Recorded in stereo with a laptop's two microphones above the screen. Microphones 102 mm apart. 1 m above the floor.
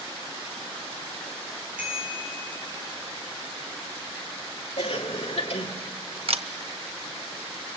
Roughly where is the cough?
Left.